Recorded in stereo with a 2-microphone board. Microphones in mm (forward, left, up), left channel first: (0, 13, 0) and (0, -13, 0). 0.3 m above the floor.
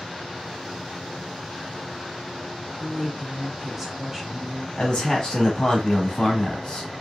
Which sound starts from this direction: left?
A man speaking, at 4.8 s.